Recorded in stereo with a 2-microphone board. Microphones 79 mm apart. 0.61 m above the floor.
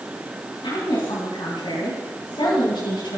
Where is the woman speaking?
80° left, 4 m; by 3.2 s 70° left (ahead or behind), 4.5 m.